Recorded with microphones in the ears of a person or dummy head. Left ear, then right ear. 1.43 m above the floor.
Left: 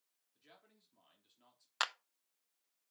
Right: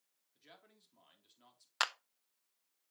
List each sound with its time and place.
0.3 s a man speaking: 10° right (ahead or behind), 3.5 m
1.8 s a clap: centre (ahead or behind), 0.7 m